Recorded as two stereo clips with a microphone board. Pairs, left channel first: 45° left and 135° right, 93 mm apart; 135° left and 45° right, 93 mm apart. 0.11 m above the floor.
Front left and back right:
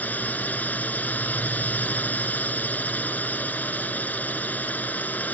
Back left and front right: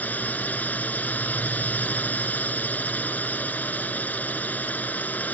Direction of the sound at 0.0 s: 90° left.